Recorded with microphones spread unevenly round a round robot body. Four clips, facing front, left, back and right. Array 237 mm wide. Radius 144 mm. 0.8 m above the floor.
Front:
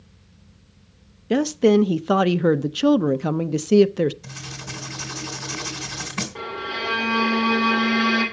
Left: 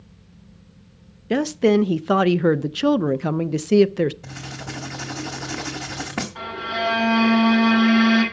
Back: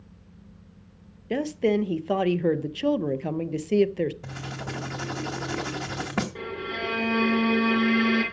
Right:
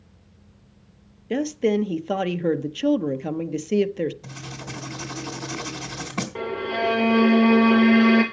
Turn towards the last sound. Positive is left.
turn(degrees=-100)